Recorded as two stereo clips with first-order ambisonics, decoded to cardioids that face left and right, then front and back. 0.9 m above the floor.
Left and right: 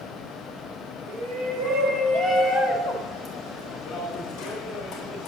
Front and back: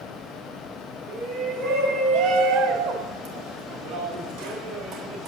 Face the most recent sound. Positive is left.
turn(degrees=140)